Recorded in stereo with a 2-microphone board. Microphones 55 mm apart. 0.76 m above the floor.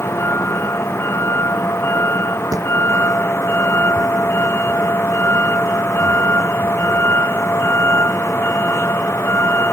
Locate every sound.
0.0 s a vehicle: 50° left (ahead or behind)
2.5 s a thud: 85° right